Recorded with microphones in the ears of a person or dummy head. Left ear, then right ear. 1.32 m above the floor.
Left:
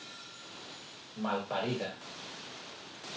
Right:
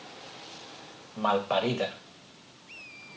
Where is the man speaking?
45° right (ahead or behind), 0.8 m.